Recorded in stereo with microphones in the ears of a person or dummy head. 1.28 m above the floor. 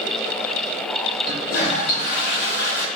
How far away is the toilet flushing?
About 1.6 m.